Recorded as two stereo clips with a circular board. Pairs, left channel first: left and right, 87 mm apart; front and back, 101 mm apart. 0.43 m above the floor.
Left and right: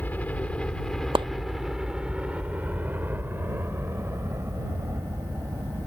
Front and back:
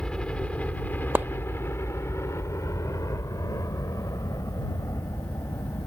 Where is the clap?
110° right.